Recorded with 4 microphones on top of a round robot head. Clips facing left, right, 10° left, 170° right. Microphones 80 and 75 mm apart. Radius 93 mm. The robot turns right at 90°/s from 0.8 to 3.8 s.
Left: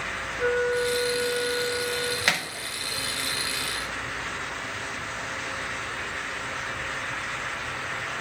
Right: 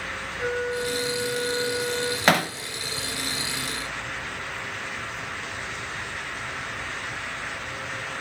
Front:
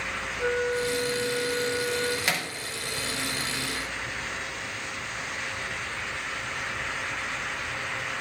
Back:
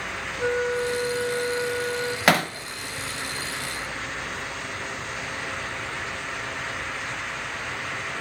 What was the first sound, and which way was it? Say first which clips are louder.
A flute: left 4 dB, back 2 dB; 130° left.